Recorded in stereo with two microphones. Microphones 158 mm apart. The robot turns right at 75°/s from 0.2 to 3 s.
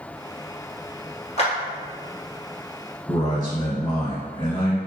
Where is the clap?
45° left (ahead or behind), 1.6 m; by 1.5 s 40° left (ahead or behind), 1.6 m.